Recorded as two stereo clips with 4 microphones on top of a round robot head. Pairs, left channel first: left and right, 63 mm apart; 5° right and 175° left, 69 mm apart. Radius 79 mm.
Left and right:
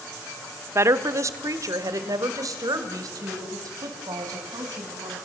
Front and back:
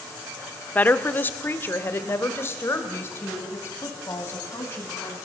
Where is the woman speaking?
65° right, 1.1 m; by 5.2 s 60° right, 4.5 m.